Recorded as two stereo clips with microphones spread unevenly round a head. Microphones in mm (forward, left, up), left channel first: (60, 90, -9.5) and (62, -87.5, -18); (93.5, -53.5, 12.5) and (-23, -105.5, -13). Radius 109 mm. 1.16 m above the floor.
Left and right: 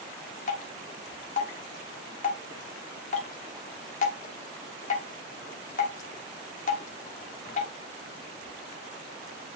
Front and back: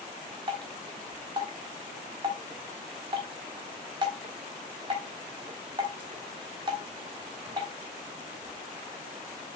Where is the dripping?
135° left, 1.1 m.